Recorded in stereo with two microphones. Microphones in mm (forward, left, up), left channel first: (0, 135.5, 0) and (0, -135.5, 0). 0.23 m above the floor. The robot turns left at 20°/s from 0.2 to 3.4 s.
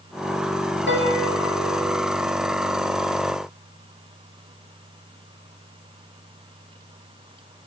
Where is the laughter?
No laughter in this recording.